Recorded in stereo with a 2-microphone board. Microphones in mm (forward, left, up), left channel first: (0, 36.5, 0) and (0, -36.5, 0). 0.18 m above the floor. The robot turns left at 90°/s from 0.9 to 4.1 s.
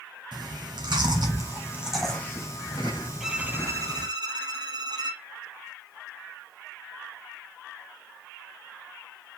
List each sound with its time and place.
0.3 s chewing: 85° right, 3 m; by 4.1 s 10° right (ahead or behind), 3 m
3.2 s a violin: 5° right, 1.1 m; by 5.2 s 85° right, 1.1 m